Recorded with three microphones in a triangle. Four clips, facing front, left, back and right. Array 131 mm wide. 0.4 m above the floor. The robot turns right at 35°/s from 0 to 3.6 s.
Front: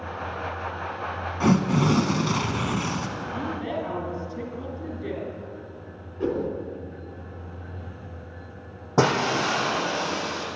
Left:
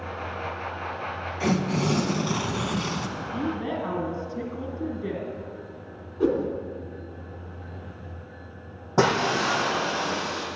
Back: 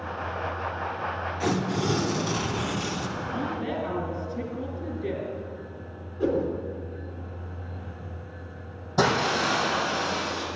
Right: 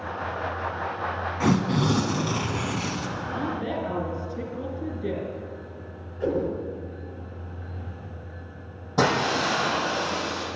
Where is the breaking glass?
30° left, 4.5 m.